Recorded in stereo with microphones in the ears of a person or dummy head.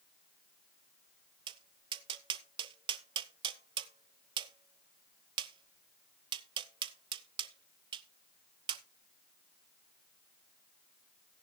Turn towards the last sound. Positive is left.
turn(degrees=-25)  # may be behind; listen again after turning